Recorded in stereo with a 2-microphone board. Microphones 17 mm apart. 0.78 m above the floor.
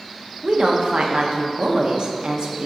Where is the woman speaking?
65° right (ahead or behind), 0.9 m.